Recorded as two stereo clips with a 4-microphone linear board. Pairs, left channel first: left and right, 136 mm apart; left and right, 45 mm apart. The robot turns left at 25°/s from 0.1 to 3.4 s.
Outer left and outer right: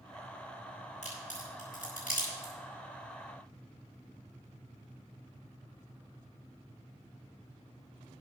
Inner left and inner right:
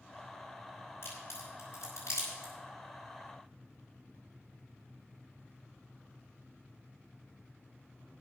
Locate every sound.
1.0 s a crack: 60° left (ahead or behind), 7 m; by 2.5 s 80° left, 7 m